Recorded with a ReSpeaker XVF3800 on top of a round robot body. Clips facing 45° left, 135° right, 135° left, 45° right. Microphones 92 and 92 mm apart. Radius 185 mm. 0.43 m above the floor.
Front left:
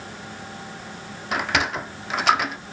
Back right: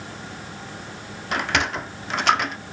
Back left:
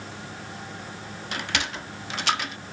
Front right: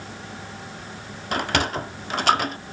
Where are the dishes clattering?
I don't hear dishes clattering.